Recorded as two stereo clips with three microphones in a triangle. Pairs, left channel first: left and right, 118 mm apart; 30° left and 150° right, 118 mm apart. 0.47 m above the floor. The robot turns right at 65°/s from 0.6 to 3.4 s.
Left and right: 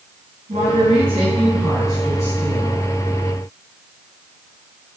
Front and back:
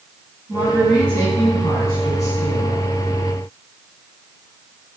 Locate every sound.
0.5 s a woman speaking: 80° right, 5 m; by 2.9 s 70° left, 5 m